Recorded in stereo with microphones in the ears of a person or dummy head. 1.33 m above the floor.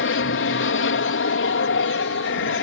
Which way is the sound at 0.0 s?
55° left (ahead or behind).